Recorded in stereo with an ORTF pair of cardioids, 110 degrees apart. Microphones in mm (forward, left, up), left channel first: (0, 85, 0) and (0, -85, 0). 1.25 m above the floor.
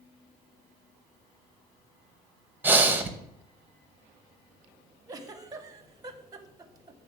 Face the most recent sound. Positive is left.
turn(degrees=-20)